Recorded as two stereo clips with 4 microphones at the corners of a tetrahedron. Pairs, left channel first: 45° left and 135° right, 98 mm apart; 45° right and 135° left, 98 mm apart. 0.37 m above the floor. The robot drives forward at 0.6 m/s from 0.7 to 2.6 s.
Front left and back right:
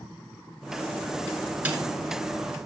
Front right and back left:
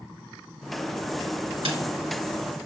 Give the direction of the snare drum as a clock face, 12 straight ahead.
7 o'clock.